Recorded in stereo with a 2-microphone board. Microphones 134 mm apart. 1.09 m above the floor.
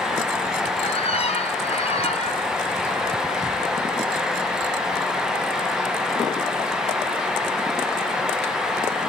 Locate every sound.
0.8 s a squeak: 50° left (ahead or behind), 2.5 m